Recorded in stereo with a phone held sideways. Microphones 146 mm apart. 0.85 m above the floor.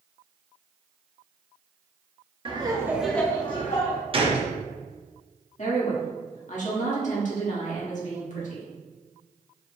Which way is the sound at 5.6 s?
55° left (ahead or behind).